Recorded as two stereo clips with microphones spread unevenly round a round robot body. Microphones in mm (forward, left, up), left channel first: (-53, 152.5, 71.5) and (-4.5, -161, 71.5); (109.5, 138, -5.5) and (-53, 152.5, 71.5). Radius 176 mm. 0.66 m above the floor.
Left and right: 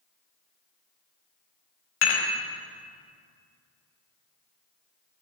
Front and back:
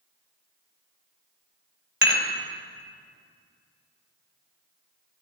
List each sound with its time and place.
2.0 s dishes clattering: 140° left, 3 m